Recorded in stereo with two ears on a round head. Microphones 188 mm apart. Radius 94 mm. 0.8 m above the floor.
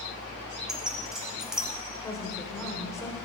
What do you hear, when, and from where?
0.7 s keys jangling: 5° right (ahead or behind), 1.4 m
2.0 s a woman speaking: 15° left (ahead or behind), 2.5 m